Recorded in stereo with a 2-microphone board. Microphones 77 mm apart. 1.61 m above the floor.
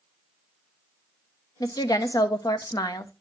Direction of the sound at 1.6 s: 55° left (ahead or behind).